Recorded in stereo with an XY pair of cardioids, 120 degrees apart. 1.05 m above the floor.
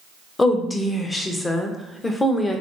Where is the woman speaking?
20° left, 0.6 m.